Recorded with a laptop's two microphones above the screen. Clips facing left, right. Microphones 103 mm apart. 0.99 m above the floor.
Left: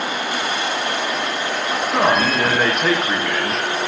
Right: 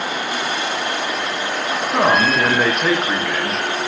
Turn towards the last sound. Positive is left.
turn(degrees=-5)  # may be behind; listen again after turning